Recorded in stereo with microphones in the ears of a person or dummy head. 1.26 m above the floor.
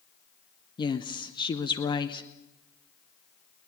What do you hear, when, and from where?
0.8 s a woman speaking: 20° left (ahead or behind), 0.9 m